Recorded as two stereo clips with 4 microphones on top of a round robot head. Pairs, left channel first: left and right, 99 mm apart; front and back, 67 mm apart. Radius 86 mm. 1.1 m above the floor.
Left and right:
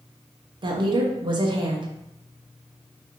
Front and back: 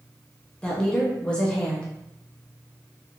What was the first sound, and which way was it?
A woman speaking, 75° right.